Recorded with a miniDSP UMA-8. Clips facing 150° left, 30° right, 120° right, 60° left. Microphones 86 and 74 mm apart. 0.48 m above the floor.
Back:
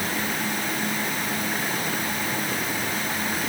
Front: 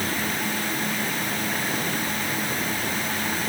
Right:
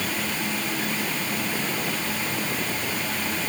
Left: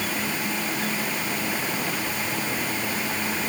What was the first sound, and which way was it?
Only background noise.